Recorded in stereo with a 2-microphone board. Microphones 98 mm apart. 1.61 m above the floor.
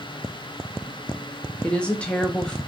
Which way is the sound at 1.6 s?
10° left (ahead or behind).